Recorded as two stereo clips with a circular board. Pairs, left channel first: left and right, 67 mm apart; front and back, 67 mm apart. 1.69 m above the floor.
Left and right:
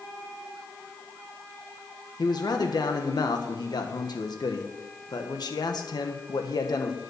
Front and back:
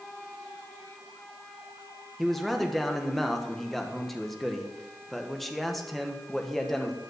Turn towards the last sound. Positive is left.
turn(degrees=85)